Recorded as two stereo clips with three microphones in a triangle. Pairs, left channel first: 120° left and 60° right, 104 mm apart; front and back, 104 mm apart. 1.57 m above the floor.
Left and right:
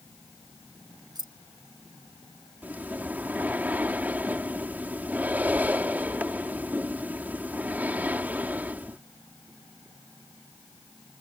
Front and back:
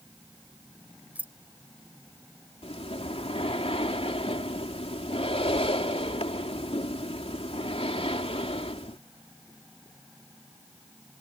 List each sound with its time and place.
1.1 s keys jangling: 105° right
2.6 s breathing: 15° left